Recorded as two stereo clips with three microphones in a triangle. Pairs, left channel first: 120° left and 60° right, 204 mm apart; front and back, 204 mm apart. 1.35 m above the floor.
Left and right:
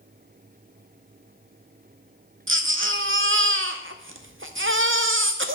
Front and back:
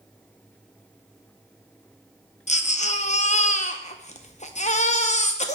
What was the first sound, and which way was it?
A baby crying, 55° right.